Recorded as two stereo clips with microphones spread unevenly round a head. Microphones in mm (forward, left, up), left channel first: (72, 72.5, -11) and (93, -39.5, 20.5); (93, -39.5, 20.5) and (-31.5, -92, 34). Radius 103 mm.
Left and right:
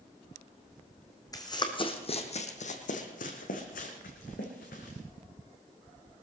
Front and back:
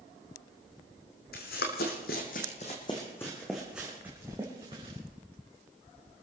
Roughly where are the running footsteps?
Ahead left.